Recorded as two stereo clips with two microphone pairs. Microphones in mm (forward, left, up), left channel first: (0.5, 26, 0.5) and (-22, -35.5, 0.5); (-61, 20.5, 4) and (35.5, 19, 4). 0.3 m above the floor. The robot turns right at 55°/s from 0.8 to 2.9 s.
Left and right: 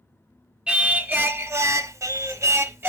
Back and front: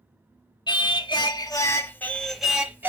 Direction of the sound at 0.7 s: Straight behind.